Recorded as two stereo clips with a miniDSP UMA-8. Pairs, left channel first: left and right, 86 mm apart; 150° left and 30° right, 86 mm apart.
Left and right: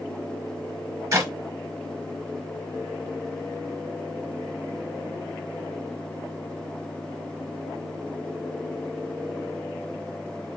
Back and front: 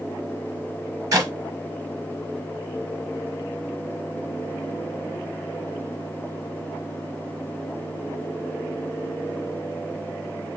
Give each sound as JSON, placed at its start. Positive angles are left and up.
{"t": 1.1, "sound": "a clap", "azimuth_deg": -65, "distance_m": 1.3}